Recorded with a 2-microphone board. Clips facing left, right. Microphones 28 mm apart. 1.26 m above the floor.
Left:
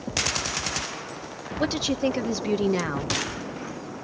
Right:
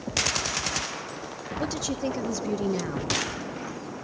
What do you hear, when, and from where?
1.6 s a woman speaking: 35° left (ahead or behind), 1.1 m